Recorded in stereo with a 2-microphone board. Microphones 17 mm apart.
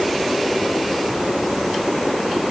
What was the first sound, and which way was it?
Only background noise.